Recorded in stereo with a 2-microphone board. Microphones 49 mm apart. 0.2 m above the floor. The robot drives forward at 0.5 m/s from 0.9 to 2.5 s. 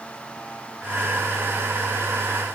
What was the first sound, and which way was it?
Only background noise.